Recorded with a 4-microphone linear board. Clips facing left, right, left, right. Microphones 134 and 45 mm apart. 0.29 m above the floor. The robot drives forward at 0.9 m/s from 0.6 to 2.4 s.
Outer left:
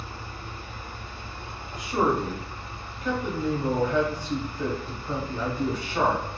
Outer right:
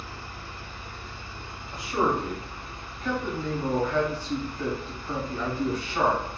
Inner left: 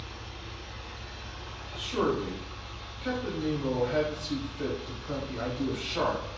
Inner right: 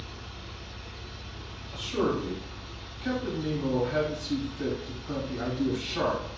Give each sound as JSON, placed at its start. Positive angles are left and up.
{"t": 0.0, "sound": "an engine running", "side_deg": 35, "distance_m": 1.0}
{"t": 1.7, "sound": "a man speaking", "side_deg": 20, "distance_m": 0.9}